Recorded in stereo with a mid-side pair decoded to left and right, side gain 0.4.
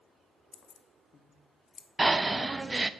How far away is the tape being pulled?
I don't hear tape being pulled.